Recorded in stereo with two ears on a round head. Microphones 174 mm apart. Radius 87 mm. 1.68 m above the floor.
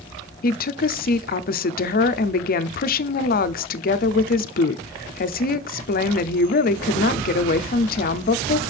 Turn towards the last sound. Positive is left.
turn(degrees=50)  # may be behind; listen again after turning